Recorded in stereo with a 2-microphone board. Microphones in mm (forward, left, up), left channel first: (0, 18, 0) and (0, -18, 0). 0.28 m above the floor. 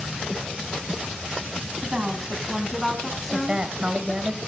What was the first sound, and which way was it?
A woman speaking, 30° right (ahead or behind).